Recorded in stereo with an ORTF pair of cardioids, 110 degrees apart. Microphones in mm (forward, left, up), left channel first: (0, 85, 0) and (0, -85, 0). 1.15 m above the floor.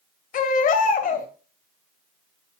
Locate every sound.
0.3 s a baby crying: 55° left, 2.5 m